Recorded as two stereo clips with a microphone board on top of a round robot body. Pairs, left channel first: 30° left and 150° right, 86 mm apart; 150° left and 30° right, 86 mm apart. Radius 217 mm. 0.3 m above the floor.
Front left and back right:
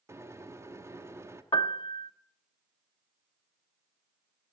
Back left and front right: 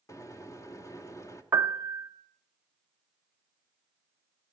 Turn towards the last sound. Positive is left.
turn(degrees=20)